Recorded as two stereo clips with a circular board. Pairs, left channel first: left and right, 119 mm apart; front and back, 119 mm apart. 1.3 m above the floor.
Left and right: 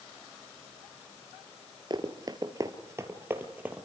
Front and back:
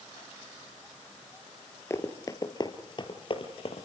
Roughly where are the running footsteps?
Ahead right.